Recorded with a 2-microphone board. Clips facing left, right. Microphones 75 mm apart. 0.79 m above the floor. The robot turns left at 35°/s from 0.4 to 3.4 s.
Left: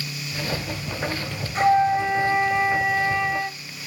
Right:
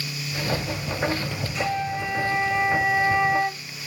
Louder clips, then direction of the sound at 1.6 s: Left 10 dB; 45° left.